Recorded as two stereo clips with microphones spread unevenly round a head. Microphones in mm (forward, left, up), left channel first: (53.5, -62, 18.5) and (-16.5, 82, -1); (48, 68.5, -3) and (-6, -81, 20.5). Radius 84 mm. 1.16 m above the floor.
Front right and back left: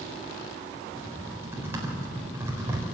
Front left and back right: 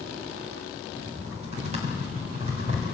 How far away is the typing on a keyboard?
About 4 m.